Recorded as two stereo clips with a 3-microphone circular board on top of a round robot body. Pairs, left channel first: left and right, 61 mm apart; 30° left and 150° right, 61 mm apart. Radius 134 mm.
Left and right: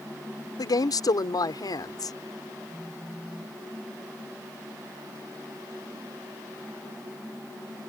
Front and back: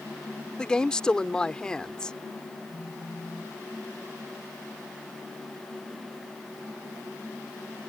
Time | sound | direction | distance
0.6 | a woman speaking | 105° left | ?
2.7 | a phone buzzing | 10° right | ?